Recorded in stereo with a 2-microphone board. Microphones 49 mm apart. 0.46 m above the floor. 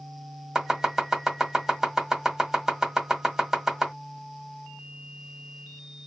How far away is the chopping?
About 1.6 m.